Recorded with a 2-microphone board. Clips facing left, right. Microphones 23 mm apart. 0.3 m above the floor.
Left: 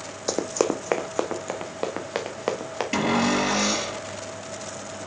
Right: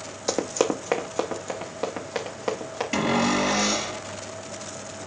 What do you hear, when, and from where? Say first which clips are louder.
0.3 s running footsteps: even; centre (ahead or behind), 0.8 m; by 2.8 s 25° left (ahead or behind), 2.5 m
2.9 s a cupboard door: even; 15° left (ahead or behind), 5 m